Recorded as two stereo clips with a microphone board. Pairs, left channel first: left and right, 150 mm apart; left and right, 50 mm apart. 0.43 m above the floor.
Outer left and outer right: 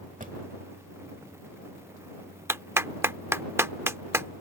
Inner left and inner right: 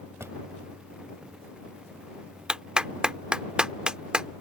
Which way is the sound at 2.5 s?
15° right (ahead or behind).